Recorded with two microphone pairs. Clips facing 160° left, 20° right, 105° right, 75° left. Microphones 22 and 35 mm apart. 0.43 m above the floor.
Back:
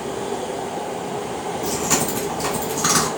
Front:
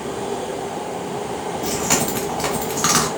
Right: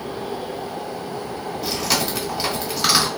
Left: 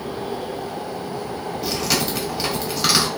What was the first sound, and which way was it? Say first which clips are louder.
Chewing: front 1 dB, even; 20° right.